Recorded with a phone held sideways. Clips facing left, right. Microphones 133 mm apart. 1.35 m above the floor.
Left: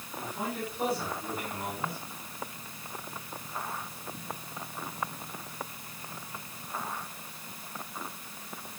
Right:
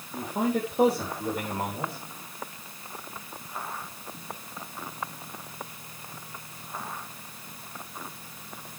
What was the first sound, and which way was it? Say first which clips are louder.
A man speaking: right 8 dB; 70° right (ahead or behind).